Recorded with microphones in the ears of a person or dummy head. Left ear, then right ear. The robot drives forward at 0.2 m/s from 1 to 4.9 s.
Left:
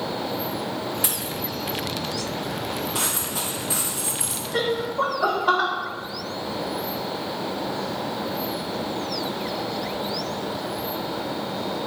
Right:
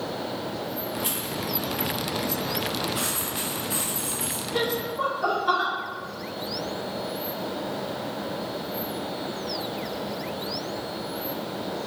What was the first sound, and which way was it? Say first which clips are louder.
A dropped coin: left 2 dB; 45° left (ahead or behind).